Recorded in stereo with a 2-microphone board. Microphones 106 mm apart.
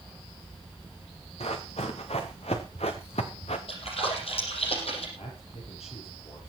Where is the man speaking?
80° left, 7.5 m.